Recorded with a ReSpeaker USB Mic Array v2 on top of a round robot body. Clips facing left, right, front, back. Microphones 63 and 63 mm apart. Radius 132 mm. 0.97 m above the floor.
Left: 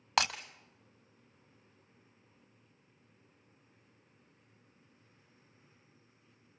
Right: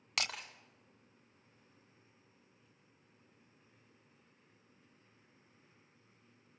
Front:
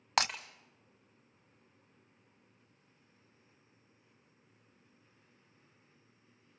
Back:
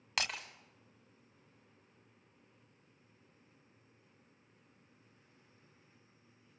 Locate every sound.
0.2 s breaking glass: 45° left, 1.0 m